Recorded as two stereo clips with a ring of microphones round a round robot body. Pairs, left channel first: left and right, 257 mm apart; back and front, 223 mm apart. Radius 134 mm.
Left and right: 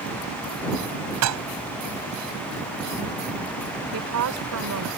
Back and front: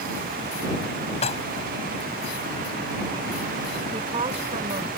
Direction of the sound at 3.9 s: 65° right.